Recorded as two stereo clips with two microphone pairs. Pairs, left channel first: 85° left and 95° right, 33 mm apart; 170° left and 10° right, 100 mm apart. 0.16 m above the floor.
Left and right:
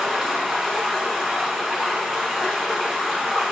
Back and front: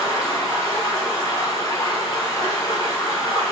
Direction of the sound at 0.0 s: 165° right.